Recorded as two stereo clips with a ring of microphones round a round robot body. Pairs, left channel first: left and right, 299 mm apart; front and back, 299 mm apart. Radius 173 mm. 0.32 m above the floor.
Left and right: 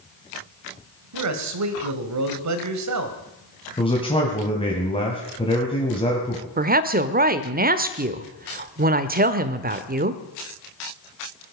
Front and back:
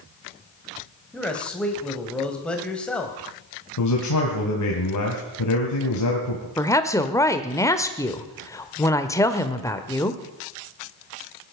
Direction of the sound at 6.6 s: 70° right.